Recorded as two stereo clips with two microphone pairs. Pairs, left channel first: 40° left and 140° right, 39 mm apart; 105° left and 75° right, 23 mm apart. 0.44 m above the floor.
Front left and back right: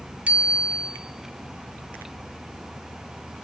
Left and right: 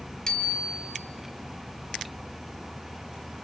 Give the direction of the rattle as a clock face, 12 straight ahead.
I don't hear a rattle.